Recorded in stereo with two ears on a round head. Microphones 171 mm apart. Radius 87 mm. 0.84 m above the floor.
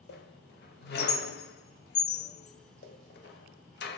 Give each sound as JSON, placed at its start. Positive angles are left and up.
{"t": 0.1, "sound": "a squeak", "side_deg": 55, "distance_m": 0.9}